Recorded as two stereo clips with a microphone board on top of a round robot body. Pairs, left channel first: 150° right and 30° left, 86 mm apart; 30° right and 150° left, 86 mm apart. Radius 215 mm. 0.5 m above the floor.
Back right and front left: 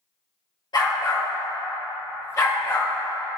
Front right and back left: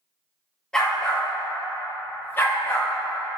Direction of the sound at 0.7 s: 110° right.